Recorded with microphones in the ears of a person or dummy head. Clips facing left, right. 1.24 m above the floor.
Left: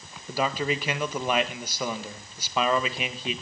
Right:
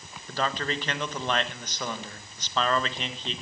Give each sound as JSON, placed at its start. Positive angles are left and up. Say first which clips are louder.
{"t": 0.3, "sound": "a man speaking", "louder": "left 3 dB", "side_deg": 5, "distance_m": 1.5}